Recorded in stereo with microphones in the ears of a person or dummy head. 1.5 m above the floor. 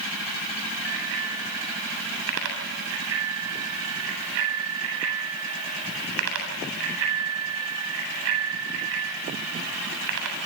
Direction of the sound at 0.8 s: 80° right.